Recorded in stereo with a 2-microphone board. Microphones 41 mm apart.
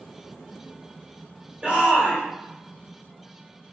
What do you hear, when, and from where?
1.6 s a shout: 25° right (ahead or behind), 1.8 m